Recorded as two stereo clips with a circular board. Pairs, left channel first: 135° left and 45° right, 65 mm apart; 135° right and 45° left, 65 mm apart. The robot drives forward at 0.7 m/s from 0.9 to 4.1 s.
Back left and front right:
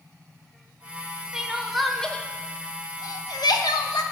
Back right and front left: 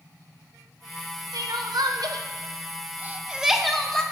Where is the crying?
35° left, 1.2 m; by 4.0 s 145° left, 1.1 m.